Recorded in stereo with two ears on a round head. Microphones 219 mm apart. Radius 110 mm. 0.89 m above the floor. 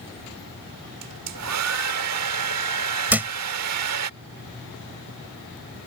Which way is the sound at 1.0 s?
70° right (ahead or behind).